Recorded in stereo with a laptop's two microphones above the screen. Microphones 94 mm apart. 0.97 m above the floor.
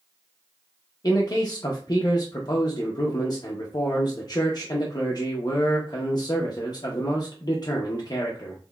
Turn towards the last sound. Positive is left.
turn(degrees=45)  # may be behind; listen again after turning